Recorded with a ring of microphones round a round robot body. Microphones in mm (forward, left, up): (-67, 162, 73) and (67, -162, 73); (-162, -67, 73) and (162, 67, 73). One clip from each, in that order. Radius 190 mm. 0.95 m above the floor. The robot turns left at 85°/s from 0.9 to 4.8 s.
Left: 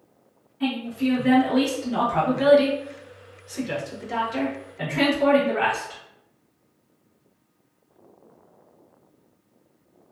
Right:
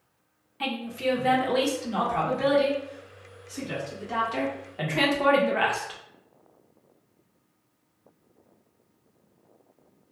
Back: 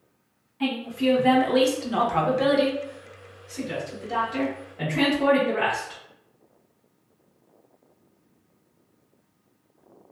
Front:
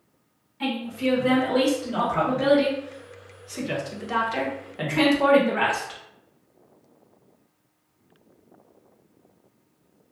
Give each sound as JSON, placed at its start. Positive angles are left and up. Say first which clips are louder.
{"t": 0.6, "sound": "a woman speaking", "louder": "left 1 dB, back 1 dB", "azimuth_deg": -70, "distance_m": 0.9}